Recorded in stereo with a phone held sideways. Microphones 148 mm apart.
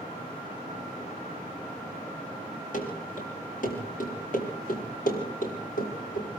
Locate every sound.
2.7 s running footsteps: 65° left (ahead or behind), 9 m; by 6.3 s 80° left, 6.5 m